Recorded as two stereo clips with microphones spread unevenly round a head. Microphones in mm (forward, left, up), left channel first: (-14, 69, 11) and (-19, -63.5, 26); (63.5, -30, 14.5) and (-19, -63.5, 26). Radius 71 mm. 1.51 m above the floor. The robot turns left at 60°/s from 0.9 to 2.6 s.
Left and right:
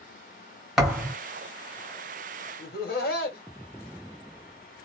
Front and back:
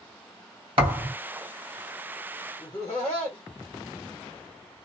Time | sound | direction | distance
0.8 | a thud | 175° right | 2.0 m
2.6 | laughter | 75° left | 1.6 m